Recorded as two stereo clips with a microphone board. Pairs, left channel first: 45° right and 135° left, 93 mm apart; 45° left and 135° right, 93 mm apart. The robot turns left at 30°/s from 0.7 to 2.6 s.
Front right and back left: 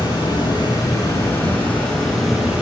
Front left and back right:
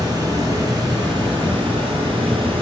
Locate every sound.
0.0 s running water: 85° right, 1.4 m; by 2.6 s 145° right, 1.4 m